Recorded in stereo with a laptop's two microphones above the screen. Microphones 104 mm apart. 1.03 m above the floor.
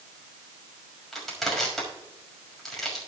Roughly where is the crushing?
Centre.